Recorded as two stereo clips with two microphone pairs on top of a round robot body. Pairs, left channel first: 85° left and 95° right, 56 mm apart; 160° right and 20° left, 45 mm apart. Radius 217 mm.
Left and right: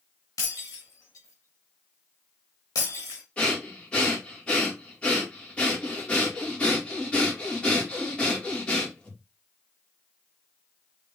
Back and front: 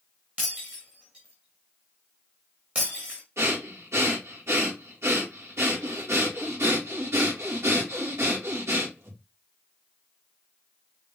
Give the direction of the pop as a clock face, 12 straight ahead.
I don't hear a pop.